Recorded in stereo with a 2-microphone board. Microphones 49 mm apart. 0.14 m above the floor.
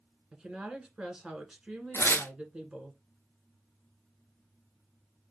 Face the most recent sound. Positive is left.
turn(degrees=55)  # may be behind; listen again after turning